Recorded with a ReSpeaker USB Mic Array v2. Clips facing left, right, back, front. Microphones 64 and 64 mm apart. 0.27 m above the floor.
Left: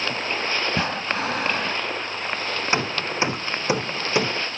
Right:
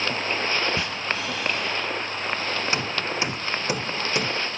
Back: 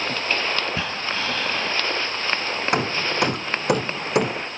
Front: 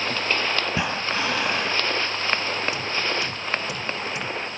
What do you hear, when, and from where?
0.7 s breathing: 70° left
2.7 s hammering: 155° left